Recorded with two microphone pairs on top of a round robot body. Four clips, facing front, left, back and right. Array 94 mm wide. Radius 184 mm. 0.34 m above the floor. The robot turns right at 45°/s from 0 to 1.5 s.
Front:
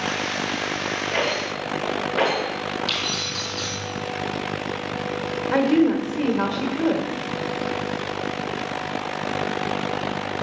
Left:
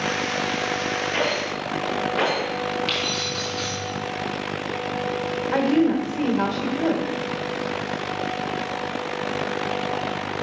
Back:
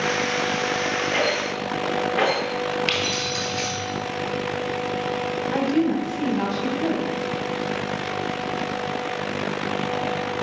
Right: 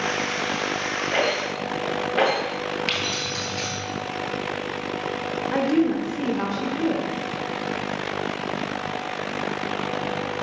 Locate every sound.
1.1 s a rattle: 80° right, 2.5 m; by 2.4 s 65° right, 2.5 m
2.9 s keys jangling: 140° right, 1.9 m
5.5 s a woman speaking: 20° right, 1.4 m